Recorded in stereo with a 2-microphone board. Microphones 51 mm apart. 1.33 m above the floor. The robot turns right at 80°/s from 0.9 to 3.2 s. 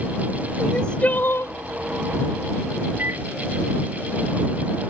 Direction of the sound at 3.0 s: 40° right (ahead or behind).